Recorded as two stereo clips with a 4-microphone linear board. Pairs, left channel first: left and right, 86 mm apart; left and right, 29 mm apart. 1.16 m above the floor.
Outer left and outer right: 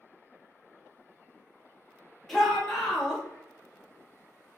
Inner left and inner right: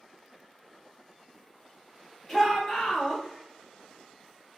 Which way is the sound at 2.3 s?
Centre (ahead or behind).